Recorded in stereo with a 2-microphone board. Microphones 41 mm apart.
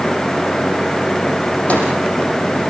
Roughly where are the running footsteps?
No running footsteps in this recording.